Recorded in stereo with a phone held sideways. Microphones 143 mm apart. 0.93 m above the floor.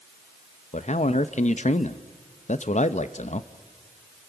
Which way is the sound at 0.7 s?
60° left (ahead or behind).